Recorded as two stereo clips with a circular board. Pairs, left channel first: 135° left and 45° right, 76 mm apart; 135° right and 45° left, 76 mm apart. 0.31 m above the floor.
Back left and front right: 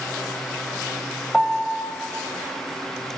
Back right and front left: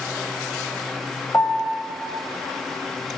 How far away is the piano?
About 1.2 m.